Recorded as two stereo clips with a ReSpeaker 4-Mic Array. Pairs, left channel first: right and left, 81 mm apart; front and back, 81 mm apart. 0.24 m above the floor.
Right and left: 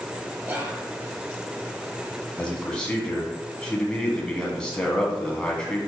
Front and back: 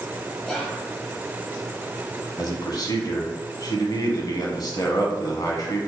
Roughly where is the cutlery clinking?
I don't hear cutlery clinking.